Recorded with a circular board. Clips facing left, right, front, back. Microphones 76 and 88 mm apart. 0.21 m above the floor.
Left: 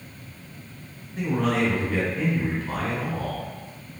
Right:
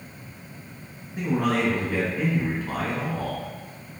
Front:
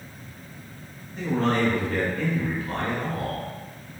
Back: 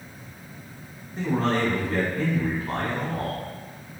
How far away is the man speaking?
About 1.2 m.